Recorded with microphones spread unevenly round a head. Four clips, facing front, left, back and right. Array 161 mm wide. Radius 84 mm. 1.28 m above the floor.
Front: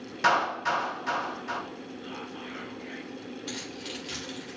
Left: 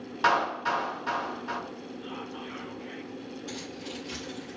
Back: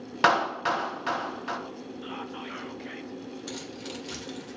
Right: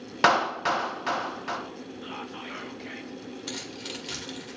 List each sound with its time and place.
0.2 s a clap: 115° right, 1.6 m
2.0 s whispering: 120° right, 1.0 m
3.5 s keys jangling: 80° right, 3 m